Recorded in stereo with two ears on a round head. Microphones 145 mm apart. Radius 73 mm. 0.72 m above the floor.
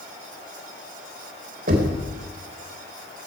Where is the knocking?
60° right (ahead or behind), 3 m.